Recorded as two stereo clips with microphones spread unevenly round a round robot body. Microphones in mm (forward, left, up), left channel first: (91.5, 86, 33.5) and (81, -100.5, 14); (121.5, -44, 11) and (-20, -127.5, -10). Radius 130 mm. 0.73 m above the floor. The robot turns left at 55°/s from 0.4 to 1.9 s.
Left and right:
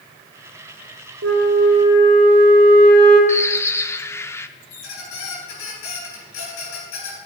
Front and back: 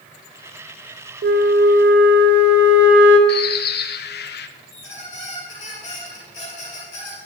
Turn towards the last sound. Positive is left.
turn(degrees=110)